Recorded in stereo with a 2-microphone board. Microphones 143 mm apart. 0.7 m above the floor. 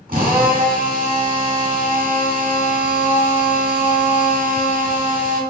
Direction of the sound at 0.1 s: 75° right (ahead or behind).